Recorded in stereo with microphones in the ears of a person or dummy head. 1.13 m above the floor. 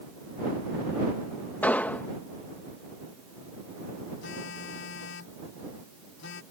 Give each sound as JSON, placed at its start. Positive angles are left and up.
{"t": 1.6, "sound": "an explosion", "side_deg": 10}
{"t": 4.2, "sound": "a phone buzzing", "side_deg": 70}